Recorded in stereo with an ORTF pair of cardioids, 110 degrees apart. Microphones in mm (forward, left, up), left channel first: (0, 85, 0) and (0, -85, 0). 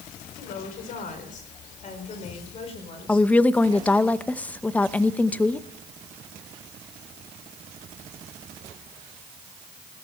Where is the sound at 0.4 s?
60° left, 4.5 m; by 4.1 s 25° left, 5 m.